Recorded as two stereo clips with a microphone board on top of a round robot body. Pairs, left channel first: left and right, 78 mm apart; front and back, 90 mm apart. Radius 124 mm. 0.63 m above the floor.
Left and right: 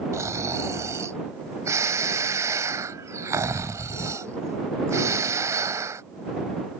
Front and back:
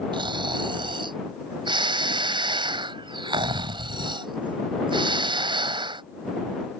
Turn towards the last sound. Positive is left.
turn(degrees=-145)